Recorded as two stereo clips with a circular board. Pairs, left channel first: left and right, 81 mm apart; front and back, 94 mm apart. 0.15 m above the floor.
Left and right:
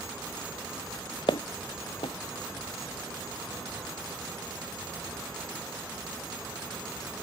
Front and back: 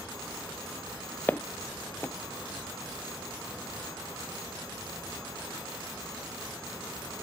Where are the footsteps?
70° left.